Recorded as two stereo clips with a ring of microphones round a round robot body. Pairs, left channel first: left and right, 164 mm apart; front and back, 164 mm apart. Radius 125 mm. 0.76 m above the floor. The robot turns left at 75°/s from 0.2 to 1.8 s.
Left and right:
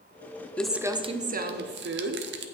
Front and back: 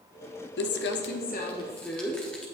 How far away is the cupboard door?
I don't hear a cupboard door.